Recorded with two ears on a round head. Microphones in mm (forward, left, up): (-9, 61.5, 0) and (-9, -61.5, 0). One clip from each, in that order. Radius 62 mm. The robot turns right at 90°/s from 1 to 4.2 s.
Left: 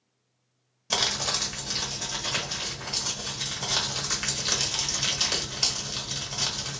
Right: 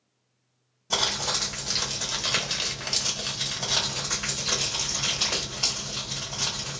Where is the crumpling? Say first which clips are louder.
Even; 135° left, 1.3 m; by 6.8 s 60° left, 1.3 m.